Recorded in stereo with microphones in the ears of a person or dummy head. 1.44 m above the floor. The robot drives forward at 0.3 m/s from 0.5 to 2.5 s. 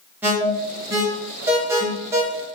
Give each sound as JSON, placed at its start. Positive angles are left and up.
{"t": 0.2, "sound": "an alarm", "side_deg": -15, "distance_m": 0.9}